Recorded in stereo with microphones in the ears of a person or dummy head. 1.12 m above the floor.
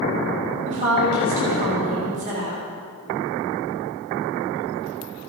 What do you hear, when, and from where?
0.7 s a woman speaking: 40° right (ahead or behind), 2.5 m